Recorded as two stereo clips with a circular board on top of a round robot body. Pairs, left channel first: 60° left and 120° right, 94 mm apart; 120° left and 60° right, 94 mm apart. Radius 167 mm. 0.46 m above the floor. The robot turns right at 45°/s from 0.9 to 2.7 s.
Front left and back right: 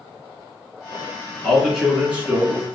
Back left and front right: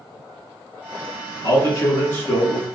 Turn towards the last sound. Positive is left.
turn(degrees=-165)